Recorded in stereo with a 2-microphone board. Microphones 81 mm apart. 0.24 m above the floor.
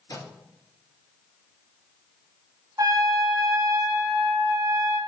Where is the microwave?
65° left (ahead or behind), 2.5 m.